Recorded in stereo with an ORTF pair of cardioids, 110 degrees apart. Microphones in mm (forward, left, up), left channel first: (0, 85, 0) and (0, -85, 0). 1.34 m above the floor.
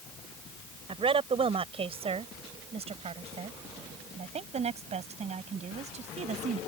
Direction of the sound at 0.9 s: 30° right.